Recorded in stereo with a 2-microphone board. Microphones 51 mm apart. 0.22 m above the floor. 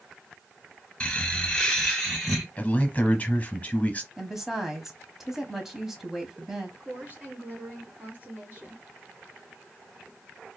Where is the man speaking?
30° left (ahead or behind), 1.2 m.